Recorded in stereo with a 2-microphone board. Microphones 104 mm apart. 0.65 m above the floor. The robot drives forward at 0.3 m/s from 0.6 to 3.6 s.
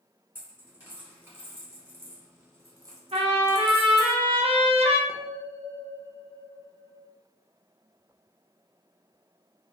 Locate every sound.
0.3 s a dropped coin: 20° right (ahead or behind), 1.1 m; by 4.1 s 40° right (ahead or behind), 0.5 m
3.1 s a trumpet: 70° right (ahead or behind), 0.6 m; by 5.0 s 65° right (ahead or behind), 0.7 m
5.1 s a bell: 5° right (ahead or behind), 0.5 m